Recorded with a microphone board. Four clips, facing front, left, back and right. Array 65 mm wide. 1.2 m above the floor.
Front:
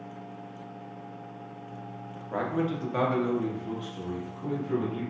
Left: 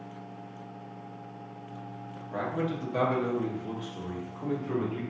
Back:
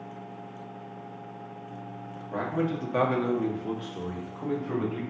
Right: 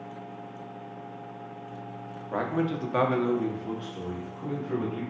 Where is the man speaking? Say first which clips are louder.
Right 3 dB, even; 70° right, 0.7 m; by 5.0 s 160° left, 1.2 m.